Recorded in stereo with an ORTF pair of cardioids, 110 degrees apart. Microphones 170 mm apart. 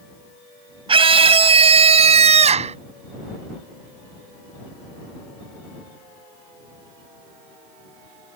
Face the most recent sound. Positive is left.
turn(degrees=-40)